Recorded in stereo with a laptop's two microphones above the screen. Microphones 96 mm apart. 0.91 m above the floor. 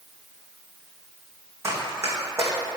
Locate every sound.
1.6 s running footsteps: 30° right (ahead or behind), 3 m